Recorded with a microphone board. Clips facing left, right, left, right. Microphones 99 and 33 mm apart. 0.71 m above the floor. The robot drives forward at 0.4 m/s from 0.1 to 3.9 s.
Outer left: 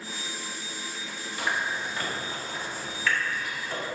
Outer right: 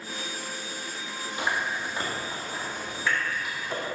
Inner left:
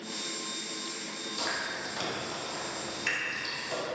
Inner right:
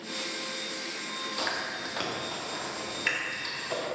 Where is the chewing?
25° right (ahead or behind), 1.5 m; by 3.8 s 15° right (ahead or behind), 2 m.